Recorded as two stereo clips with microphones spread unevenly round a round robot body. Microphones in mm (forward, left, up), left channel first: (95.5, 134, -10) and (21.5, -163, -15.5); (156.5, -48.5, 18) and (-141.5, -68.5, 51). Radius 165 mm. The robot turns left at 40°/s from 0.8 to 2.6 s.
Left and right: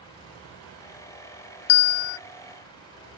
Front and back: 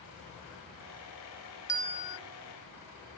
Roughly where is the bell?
Left.